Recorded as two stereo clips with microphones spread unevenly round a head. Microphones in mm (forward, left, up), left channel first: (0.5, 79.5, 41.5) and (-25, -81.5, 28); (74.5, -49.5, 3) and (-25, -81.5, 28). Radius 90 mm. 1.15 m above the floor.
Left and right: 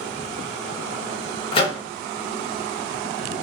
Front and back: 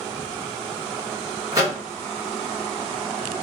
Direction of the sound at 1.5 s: 135° left.